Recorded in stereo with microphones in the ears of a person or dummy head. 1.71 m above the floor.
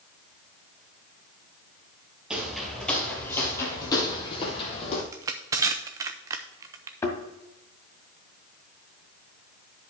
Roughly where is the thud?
Centre.